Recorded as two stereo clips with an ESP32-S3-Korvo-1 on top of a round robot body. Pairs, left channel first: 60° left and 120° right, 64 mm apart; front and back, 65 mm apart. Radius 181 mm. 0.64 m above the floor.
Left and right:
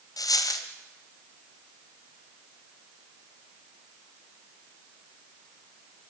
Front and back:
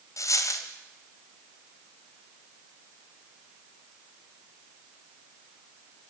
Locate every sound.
0.2 s a dropped coin: 40° left, 1.3 m